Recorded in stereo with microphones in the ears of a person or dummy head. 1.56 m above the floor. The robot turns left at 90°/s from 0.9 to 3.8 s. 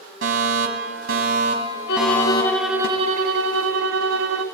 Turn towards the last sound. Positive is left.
turn(degrees=-105)